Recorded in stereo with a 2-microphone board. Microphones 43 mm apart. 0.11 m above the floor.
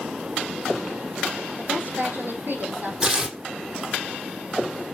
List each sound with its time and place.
1.6 s a woman speaking: 55° right (ahead or behind), 3 m
3.0 s tearing paper: 15° right (ahead or behind), 1.5 m